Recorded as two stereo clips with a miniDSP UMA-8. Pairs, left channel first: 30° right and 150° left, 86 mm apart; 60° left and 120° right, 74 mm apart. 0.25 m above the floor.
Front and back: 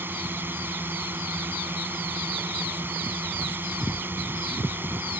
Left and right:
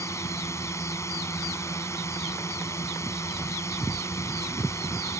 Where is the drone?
90° left.